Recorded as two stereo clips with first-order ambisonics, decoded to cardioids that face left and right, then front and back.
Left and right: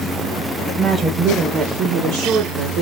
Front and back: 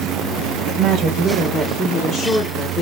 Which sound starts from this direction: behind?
A woman speaking, at 0.7 s.